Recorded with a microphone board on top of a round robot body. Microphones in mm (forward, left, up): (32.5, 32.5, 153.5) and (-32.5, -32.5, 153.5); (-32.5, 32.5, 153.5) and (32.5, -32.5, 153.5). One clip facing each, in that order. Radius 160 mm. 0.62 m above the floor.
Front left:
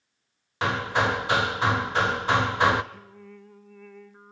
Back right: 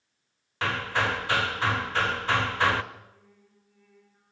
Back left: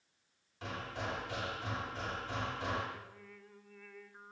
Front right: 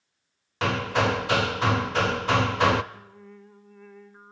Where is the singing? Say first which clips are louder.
Front left 7 dB, front right 5 dB; 20° left, 1.3 m.